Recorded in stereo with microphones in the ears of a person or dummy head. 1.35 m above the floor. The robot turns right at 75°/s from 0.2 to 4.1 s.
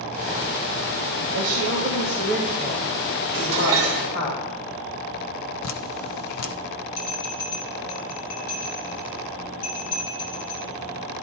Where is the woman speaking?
90° right, 2 m; by 4.3 s 115° left, 2 m.